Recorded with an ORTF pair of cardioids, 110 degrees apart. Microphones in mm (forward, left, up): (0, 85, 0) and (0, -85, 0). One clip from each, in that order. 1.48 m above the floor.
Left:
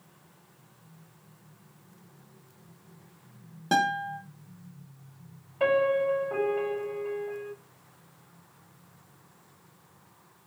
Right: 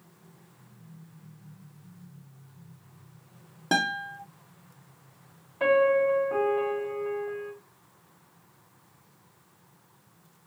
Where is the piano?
10° left, 1.9 m.